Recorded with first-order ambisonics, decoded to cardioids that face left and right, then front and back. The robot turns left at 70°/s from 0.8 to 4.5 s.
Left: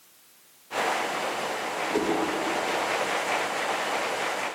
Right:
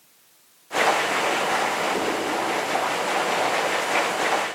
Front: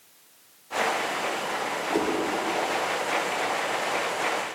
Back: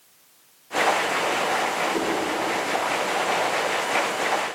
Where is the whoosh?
10° left, 6 m; by 2.2 s 10° right, 6 m.